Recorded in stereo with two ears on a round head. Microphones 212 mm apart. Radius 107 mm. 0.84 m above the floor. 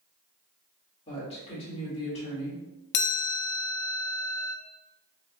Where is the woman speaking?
30° left (ahead or behind), 1.6 m.